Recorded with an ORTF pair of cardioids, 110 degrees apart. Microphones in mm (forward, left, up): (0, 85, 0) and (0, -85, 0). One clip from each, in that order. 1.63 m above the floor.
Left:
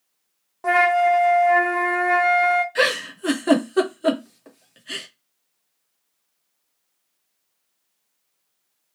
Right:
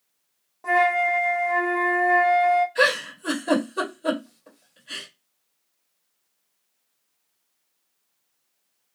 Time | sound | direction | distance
0.6 | a flute | 35° left | 0.5 m
2.8 | a giggle | 70° left | 1.2 m